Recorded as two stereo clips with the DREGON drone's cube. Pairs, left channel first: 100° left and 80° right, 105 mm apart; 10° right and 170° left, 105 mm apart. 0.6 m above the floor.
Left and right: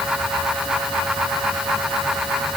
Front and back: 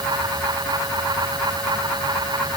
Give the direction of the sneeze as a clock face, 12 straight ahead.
No sneeze in this recording.